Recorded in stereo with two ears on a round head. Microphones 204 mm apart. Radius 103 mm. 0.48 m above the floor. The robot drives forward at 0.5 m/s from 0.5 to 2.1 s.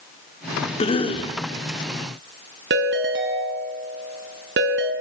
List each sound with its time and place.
0.8 s a cough: 25° left (ahead or behind), 1.5 m
2.7 s a ringtone: 55° right (ahead or behind), 2 m